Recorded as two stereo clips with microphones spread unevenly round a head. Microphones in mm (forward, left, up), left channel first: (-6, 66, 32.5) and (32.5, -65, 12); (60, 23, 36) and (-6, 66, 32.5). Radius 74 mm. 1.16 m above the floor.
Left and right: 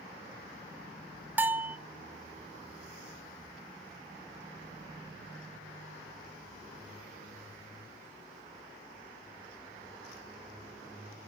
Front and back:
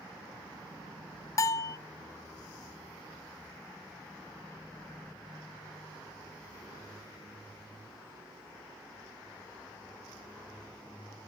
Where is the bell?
10° left, 0.6 m.